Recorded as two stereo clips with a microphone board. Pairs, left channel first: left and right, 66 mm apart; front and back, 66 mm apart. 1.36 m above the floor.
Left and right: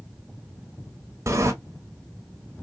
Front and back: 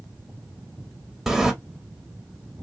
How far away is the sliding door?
About 0.8 m.